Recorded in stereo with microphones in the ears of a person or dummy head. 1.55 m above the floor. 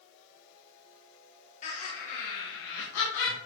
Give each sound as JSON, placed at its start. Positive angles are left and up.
{"t": 1.6, "sound": "laughter", "side_deg": 50, "distance_m": 2.5}